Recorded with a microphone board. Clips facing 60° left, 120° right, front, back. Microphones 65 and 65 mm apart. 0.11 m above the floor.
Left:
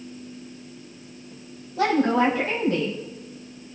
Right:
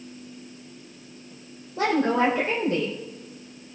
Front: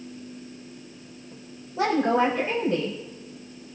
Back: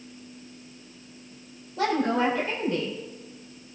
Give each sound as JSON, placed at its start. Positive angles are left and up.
{"t": 1.8, "sound": "a woman speaking", "azimuth_deg": -65, "distance_m": 5.5}